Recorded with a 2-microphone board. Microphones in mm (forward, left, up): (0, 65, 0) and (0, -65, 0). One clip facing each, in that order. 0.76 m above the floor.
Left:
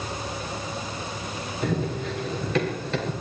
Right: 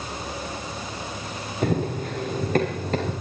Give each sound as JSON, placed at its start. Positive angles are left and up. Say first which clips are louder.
{"t": 1.6, "sound": "running footsteps", "louder": "right 3 dB", "side_deg": -50, "distance_m": 6.5}